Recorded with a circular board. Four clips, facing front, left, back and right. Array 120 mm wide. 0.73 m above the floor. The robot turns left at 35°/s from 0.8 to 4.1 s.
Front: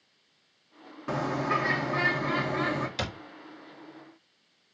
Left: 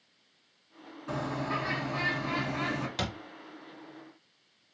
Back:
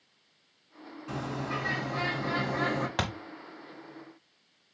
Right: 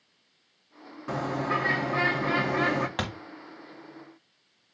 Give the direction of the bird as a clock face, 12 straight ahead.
1 o'clock.